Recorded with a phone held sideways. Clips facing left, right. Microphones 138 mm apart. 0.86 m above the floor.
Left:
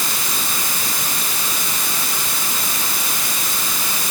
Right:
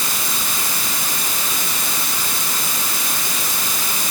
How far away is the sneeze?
No sneeze in this recording.